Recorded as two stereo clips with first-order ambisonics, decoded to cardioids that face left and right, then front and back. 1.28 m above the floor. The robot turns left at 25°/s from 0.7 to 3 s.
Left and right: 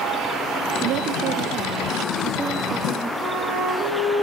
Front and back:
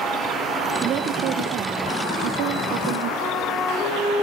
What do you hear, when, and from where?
0.8 s a woman speaking: 125° right, 0.9 m; by 3.1 s straight behind, 0.9 m
3.2 s a flute: 35° right, 4.5 m